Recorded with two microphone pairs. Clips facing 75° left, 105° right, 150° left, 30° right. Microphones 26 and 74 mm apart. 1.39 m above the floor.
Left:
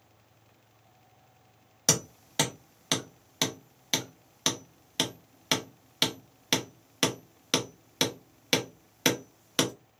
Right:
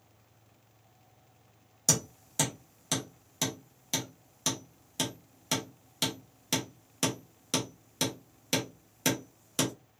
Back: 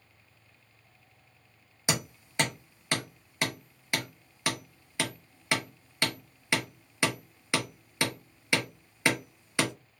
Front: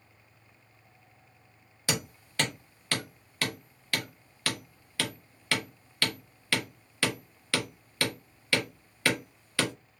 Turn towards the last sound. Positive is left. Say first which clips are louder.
# left 2 dB, back 1 dB
turn(degrees=90)